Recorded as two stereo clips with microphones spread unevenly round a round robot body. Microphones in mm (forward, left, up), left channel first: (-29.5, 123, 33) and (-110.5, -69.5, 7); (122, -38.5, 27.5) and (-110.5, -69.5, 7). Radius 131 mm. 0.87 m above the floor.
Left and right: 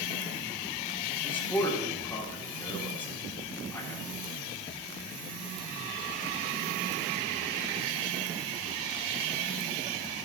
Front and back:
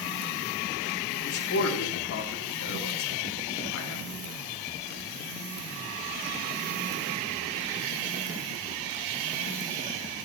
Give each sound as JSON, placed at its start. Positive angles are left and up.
{"t": 1.2, "sound": "a man speaking", "azimuth_deg": -20, "distance_m": 2.0}